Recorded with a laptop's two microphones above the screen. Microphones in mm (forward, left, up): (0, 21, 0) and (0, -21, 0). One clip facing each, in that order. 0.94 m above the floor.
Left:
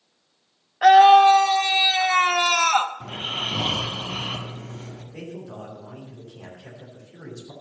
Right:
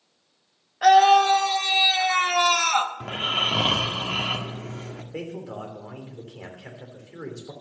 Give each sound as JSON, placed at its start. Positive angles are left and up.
{"t": 0.8, "sound": "a scream", "side_deg": 15, "distance_m": 0.7}
{"t": 3.0, "sound": "snoring", "side_deg": -65, "distance_m": 1.5}
{"t": 5.1, "sound": "a man speaking", "side_deg": -65, "distance_m": 3.0}